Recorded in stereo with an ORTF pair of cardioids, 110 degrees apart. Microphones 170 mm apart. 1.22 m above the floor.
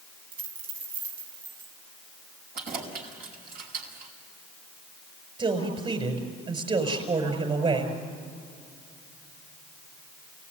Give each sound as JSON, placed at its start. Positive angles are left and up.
{"t": 0.3, "sound": "a dropped coin", "azimuth_deg": -70, "distance_m": 3.5}
{"t": 2.5, "sound": "keys jangling", "azimuth_deg": -65, "distance_m": 5.5}
{"t": 5.4, "sound": "a man speaking", "azimuth_deg": -35, "distance_m": 6.0}